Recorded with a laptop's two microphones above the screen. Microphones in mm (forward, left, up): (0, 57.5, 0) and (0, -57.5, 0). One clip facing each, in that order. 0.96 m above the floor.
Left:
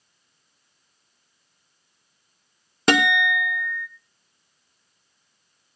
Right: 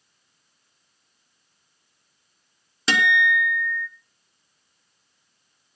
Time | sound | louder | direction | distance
2.9 | a guitar | left 2 dB | 50° left (ahead or behind) | 0.9 m